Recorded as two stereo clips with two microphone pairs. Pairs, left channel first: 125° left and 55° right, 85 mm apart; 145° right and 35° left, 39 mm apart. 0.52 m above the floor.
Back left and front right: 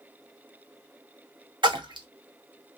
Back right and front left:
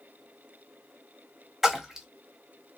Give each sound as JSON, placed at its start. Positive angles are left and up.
{"t": 1.6, "sound": "a splash", "azimuth_deg": -40, "distance_m": 0.7}